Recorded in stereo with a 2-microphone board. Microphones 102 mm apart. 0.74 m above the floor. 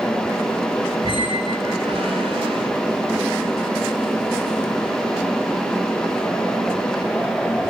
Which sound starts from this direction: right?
A squeak, at 1.0 s.